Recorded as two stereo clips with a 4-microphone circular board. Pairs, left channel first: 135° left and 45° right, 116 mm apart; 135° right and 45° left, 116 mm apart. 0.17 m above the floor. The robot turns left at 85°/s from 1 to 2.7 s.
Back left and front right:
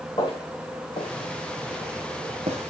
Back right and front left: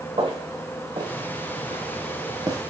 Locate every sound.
0.2 s footsteps: 85° left, 2.5 m; by 2.7 s 30° right, 1.9 m